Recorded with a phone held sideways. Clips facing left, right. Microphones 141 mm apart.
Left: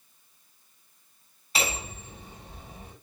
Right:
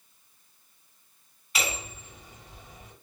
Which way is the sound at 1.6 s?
30° left (ahead or behind).